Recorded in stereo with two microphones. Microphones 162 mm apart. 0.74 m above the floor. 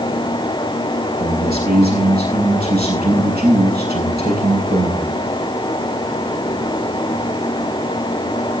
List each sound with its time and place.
1.2 s a man speaking: 80° right, 9 m